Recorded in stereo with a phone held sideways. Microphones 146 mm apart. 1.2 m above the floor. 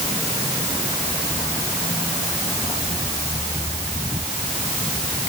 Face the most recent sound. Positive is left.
No sound to turn to.